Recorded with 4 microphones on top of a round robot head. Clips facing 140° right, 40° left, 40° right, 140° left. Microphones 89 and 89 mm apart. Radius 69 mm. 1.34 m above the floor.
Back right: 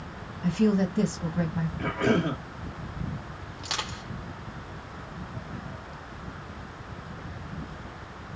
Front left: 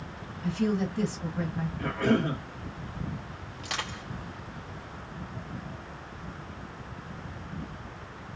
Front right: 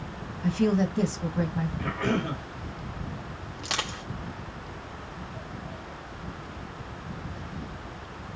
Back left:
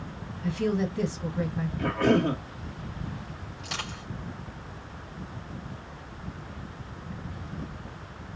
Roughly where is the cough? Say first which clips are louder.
Back right 1 dB, back left 7 dB; behind left.